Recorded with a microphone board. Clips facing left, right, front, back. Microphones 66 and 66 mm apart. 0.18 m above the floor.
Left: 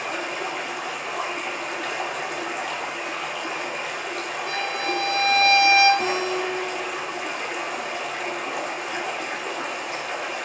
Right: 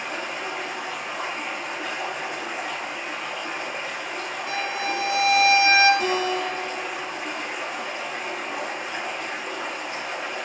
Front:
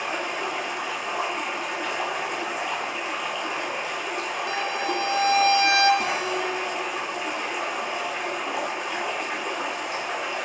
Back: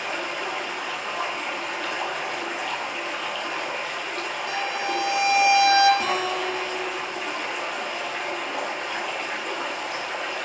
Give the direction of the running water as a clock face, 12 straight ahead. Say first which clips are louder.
Left 2 dB, front 1 dB; 10 o'clock.